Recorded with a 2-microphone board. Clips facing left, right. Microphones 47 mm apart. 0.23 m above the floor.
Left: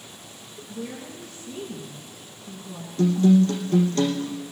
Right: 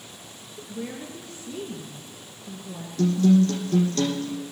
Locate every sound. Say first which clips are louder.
0.6 s a woman speaking: right 1 dB; 65° right (ahead or behind), 3.5 m
3.0 s a guitar: left 1 dB; 25° left (ahead or behind), 4.5 m